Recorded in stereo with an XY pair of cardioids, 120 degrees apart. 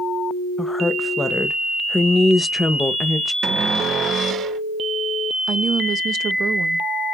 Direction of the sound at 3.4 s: 65° right.